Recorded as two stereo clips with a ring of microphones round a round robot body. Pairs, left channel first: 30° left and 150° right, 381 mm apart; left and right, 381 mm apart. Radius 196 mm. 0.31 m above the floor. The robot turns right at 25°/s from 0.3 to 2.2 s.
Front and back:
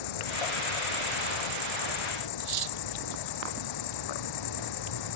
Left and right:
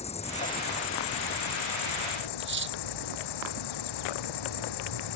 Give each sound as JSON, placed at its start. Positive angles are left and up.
{"t": 0.0, "sound": "an insect", "azimuth_deg": 15}
{"t": 2.4, "sound": "cutlery clinking", "azimuth_deg": -150}